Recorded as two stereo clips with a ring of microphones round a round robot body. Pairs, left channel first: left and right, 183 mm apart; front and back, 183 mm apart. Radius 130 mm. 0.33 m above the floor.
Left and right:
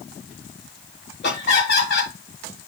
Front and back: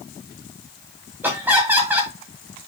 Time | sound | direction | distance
1.2 | laughter | 100° left | 2 m